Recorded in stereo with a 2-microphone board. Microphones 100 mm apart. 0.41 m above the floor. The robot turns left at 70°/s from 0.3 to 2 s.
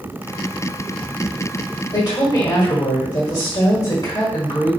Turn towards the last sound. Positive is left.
turn(degrees=45)  # may be behind; listen again after turning